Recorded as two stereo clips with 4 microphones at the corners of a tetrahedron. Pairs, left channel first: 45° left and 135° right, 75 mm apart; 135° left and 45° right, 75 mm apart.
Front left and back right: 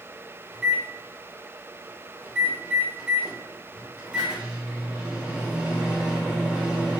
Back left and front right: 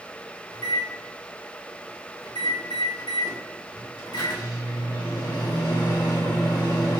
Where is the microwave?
150° left, 1.6 m.